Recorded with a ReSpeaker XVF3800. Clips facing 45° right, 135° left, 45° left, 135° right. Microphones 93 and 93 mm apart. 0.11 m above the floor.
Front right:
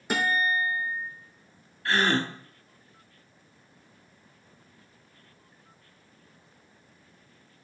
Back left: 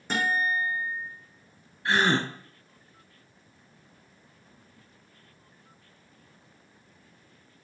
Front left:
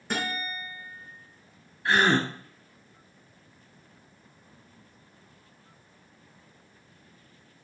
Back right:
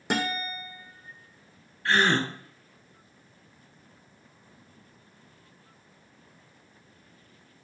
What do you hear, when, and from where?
0.1 s a guitar: 125° right, 2.5 m
1.9 s a gasp: 100° left, 0.8 m